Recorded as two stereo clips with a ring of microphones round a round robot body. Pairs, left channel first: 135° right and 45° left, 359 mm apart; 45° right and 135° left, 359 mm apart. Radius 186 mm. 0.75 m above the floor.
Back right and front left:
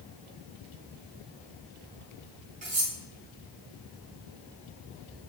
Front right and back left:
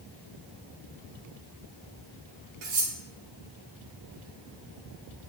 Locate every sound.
2.6 s cutlery clinking: 115° left, 4 m